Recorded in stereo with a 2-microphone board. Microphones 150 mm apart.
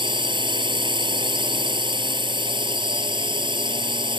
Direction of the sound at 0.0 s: 30° right (ahead or behind).